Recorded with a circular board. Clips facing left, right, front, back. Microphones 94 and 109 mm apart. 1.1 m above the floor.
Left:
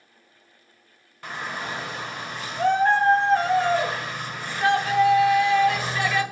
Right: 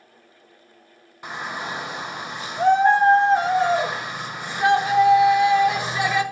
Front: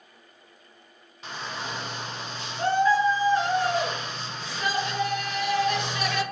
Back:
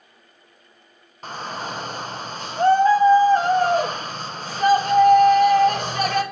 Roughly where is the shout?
Behind right.